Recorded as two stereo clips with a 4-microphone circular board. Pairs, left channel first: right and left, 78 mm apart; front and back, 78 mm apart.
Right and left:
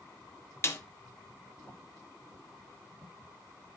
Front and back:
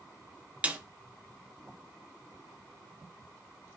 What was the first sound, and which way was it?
A snare drum, 120° right.